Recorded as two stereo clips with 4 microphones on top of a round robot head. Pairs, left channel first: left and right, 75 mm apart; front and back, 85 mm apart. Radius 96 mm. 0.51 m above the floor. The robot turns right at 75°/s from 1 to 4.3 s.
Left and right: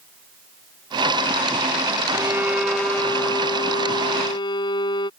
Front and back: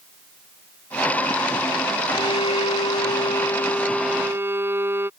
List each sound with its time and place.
2.1 s a violin: 45° right; by 5.1 s 120° left